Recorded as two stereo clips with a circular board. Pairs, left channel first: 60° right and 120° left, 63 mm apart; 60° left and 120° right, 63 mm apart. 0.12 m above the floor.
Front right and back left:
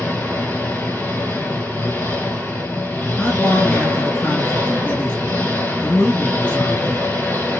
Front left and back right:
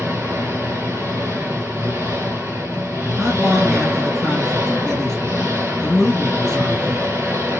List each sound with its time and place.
0.0 s an engine running: 85° right, 1.3 m
3.2 s a man speaking: 25° right, 2.0 m